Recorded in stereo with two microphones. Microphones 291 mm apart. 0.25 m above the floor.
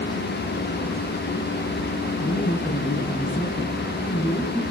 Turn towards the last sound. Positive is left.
turn(degrees=15)  # may be behind; listen again after turning